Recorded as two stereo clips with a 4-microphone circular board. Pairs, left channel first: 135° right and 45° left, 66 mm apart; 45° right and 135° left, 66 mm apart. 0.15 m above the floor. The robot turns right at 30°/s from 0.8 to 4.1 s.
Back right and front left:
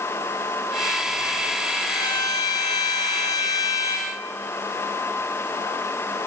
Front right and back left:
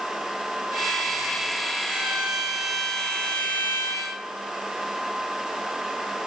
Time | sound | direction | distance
1.9 | a violin | 155° right | 3 m